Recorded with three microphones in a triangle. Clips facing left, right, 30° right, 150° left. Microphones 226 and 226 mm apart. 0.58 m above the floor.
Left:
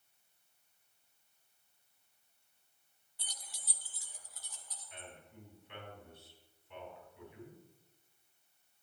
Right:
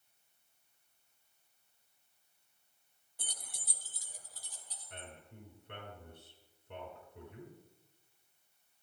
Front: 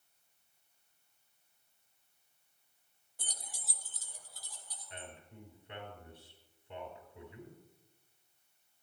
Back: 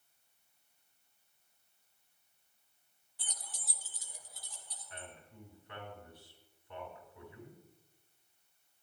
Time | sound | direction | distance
3.2 | keys jangling | 65° right | 0.6 m
4.9 | a man speaking | 95° right | 4 m